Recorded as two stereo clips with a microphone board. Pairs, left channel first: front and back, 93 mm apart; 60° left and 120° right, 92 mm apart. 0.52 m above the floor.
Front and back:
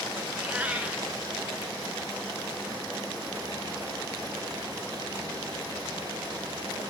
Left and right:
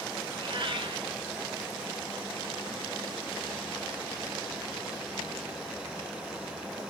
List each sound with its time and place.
0.3 s a cat meowing: 105° right, 0.8 m